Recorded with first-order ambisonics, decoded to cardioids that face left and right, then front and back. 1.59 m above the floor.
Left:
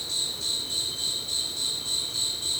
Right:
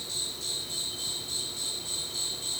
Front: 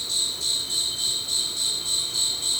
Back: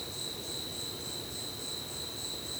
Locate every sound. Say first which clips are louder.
0.0 s an insect: left 5 dB, front 13 dB; 15° left, 1.4 m